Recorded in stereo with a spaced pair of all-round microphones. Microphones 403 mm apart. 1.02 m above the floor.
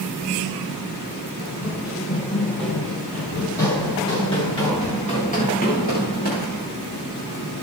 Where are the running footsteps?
5° right (ahead or behind), 10 m; by 6.7 s 25° left (ahead or behind), 11.5 m.